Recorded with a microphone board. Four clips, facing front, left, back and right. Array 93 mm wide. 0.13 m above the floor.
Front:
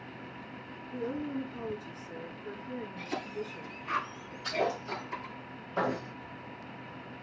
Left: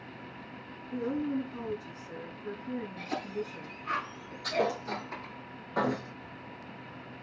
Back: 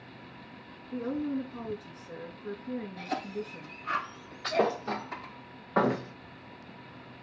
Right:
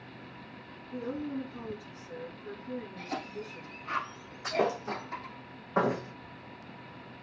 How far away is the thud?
About 2.0 m.